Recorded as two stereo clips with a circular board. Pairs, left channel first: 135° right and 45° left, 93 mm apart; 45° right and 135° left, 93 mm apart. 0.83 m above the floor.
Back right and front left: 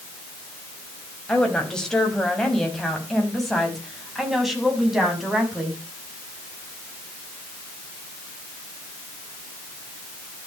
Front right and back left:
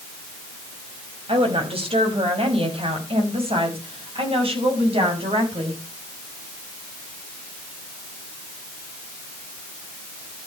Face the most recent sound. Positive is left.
turn(degrees=130)